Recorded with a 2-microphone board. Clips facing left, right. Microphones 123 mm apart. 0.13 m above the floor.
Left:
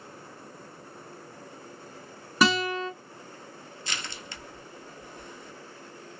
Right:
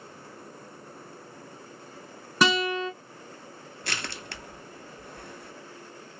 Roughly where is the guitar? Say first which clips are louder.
Even; centre.